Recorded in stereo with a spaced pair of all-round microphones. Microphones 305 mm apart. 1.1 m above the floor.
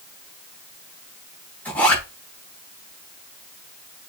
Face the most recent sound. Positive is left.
turn(degrees=5)  # may be behind; listen again after turning